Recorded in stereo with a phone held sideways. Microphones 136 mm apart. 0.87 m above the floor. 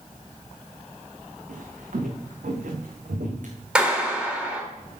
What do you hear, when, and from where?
1.5 s footsteps: 80° right, 4.5 m; by 3.5 s 75° right (ahead or behind), 3.5 m
3.8 s a clap: 5° right (ahead or behind), 3.5 m